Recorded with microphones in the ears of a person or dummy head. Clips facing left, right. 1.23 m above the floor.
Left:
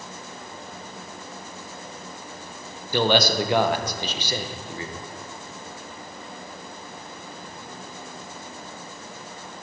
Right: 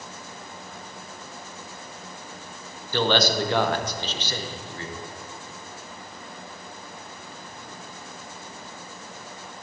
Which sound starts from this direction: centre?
A man speaking, at 2.9 s.